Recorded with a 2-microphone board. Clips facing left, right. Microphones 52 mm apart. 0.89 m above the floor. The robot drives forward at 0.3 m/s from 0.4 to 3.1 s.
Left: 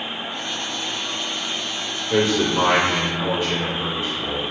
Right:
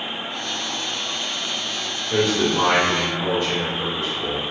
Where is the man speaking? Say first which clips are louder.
Left 1 dB; 20° left (ahead or behind), 1.0 m; by 4.4 s 15° left (ahead or behind), 1.2 m.